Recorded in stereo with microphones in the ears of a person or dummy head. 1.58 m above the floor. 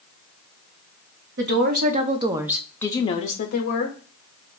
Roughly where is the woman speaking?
Right.